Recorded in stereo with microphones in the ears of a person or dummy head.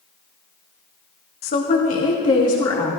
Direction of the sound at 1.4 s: 45° left (ahead or behind).